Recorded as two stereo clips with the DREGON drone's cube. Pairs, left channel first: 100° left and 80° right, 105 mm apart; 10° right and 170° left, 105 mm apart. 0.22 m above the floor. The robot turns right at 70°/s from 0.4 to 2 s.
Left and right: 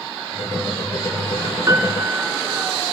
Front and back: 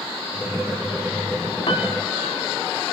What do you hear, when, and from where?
1.7 s a piano: 30° right, 1.0 m; by 2.7 s 5° right, 1.0 m